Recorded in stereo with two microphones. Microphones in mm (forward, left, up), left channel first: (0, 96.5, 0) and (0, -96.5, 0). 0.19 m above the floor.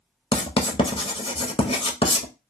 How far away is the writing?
About 0.6 m.